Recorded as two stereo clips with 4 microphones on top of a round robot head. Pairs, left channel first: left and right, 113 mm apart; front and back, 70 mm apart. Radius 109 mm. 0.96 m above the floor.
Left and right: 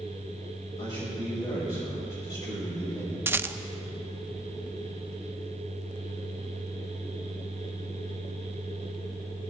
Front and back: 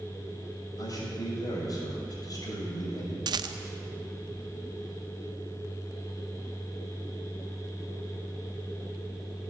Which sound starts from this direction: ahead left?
A man speaking, at 0.8 s.